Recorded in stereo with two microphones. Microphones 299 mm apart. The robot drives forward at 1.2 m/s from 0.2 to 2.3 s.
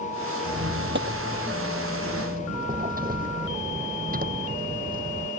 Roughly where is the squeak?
Right.